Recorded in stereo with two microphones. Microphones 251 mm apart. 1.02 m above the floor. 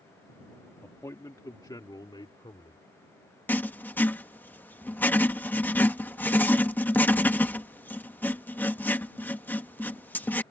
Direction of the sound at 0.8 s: 10° left (ahead or behind).